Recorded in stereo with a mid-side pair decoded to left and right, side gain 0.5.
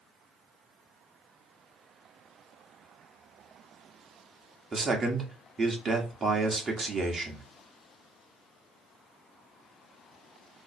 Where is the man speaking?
30° right, 1.3 m.